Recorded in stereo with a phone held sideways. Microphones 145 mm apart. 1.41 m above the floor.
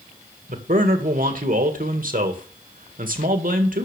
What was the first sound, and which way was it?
A man speaking, 75° right (ahead or behind).